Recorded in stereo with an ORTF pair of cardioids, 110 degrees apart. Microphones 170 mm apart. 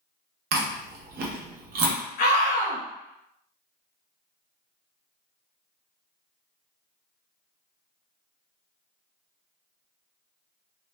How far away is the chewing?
About 0.7 m.